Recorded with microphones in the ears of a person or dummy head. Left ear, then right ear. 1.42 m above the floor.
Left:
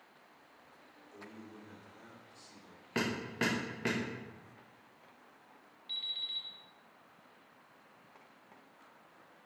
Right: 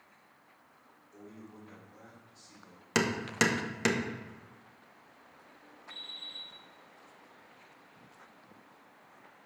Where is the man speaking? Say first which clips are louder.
Even; 40° left (ahead or behind), 3 m.